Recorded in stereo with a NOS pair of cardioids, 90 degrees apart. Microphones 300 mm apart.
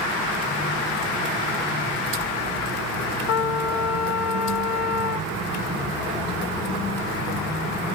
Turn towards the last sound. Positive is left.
turn(degrees=55)